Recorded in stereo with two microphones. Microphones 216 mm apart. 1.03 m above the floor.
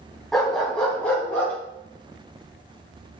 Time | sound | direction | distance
0.3 | a dog barking | centre (ahead or behind) | 3.5 m